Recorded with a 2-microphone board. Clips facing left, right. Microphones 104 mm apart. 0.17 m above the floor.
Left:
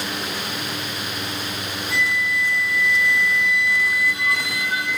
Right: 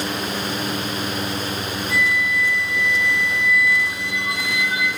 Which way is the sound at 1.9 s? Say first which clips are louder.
Right 1 dB; 20° right (ahead or behind).